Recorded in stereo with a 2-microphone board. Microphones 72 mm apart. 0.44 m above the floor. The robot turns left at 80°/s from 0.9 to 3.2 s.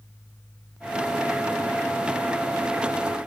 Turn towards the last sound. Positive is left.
No sound to turn to.